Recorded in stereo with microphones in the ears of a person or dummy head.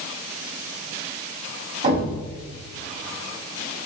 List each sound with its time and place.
1.8 s a thud: 30° right (ahead or behind), 1.2 m